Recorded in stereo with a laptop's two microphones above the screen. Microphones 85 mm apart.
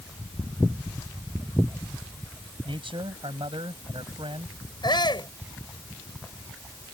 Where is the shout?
60° left (ahead or behind).